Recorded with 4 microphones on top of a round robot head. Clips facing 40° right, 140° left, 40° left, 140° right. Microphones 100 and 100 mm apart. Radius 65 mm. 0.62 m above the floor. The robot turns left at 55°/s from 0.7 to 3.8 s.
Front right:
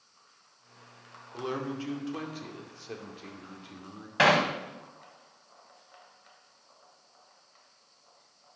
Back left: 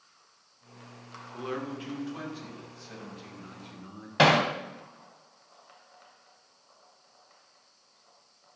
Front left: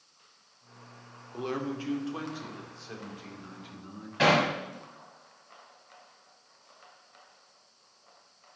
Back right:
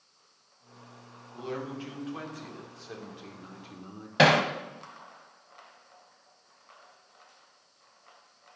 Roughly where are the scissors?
No scissors in this recording.